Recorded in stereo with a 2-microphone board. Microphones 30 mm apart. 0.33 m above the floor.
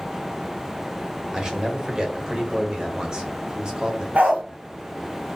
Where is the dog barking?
60° right (ahead or behind), 1.8 m.